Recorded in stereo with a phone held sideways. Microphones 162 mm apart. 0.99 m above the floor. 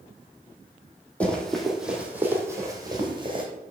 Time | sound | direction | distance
1.2 | running footsteps | 10° left (ahead or behind) | 1.8 m